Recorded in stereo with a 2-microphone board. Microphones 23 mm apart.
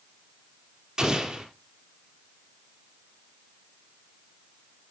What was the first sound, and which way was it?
An explosion, 30° right (ahead or behind).